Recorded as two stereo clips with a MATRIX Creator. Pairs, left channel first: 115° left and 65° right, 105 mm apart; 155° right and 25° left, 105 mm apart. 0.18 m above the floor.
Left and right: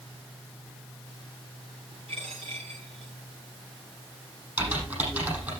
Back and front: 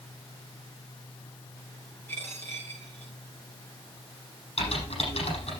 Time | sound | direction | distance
2.1 | a dropped coin | 90° right | 9 m
4.6 | typing on a keyboard | 140° right | 7 m